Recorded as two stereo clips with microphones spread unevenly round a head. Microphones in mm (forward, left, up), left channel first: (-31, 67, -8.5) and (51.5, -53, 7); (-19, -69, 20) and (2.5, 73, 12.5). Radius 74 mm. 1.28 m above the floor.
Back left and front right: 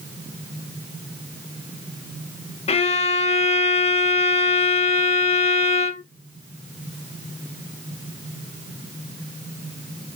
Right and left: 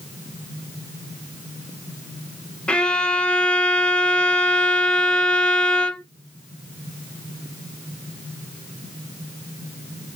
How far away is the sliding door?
No sliding door in this recording.